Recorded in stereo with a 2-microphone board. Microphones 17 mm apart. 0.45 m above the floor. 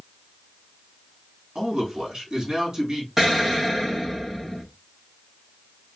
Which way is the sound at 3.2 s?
20° right (ahead or behind).